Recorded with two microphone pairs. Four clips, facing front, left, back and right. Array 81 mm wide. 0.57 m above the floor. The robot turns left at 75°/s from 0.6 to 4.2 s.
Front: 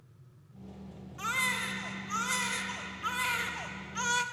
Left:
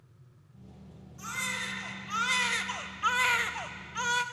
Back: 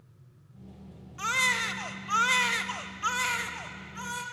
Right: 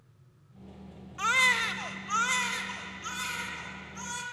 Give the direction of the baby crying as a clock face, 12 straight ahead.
3 o'clock.